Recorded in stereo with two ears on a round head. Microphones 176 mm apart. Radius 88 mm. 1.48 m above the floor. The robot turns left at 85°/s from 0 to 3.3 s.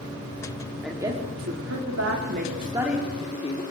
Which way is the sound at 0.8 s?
Centre (ahead or behind).